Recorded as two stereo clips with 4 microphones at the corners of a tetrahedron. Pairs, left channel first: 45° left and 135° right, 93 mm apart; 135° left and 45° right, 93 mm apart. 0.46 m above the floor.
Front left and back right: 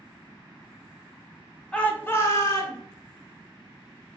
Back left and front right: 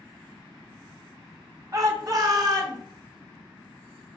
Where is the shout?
30° right, 0.9 m; by 2.8 s straight ahead, 1.5 m.